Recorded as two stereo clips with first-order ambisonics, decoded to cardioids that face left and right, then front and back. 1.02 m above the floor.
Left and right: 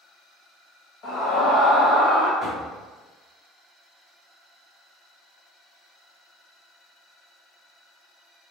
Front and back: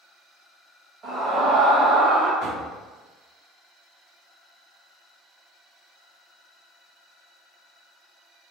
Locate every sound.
1.0 s a scream: 115° left, 1.5 m; by 2.3 s 145° left, 1.6 m
2.4 s knocking: 10° left, 1.3 m